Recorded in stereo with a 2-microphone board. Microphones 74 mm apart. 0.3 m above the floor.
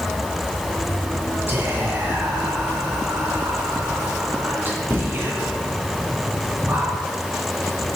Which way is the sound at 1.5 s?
30° right (ahead or behind).